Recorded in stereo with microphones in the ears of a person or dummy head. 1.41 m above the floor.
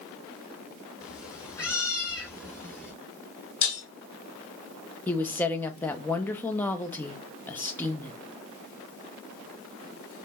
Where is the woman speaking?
10° left (ahead or behind), 0.7 m.